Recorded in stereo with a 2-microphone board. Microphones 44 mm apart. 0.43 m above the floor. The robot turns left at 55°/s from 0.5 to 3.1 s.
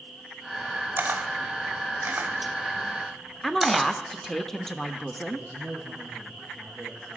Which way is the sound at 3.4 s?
10° left (ahead or behind).